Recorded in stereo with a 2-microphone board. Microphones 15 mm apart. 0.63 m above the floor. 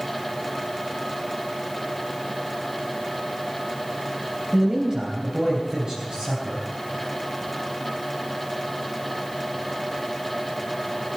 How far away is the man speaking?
About 3 m.